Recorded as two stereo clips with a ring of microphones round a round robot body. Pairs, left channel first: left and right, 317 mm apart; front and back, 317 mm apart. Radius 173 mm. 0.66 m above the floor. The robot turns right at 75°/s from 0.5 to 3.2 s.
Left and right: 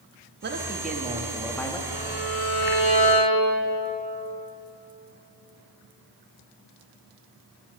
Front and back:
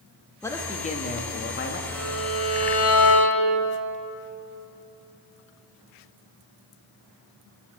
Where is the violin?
50° right, 3.5 m; by 3.6 s 45° left, 3.5 m.